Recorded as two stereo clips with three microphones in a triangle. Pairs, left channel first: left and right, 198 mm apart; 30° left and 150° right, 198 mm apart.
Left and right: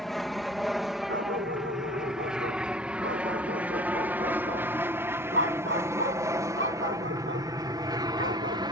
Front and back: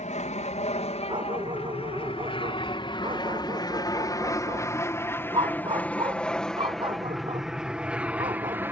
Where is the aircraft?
Straight ahead; by 8.7 s 90° right.